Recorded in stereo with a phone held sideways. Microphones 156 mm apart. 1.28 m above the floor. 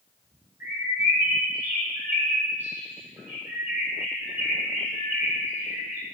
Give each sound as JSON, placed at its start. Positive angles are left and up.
{"t": 0.6, "sound": "a bird", "side_deg": -15, "distance_m": 5.0}